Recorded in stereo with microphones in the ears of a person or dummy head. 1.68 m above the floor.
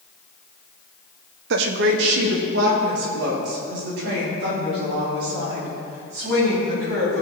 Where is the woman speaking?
60° right (ahead or behind), 0.8 m; by 7.2 s 65° right (ahead or behind), 9.5 m.